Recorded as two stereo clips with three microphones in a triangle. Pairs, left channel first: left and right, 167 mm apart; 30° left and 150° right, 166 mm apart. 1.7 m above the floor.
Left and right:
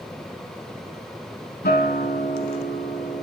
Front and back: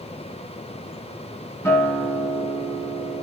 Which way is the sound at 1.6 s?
105° left.